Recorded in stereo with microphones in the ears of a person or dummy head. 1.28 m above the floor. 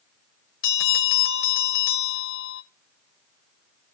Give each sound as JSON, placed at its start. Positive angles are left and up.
{"t": 0.6, "sound": "a bell", "side_deg": 65, "distance_m": 1.5}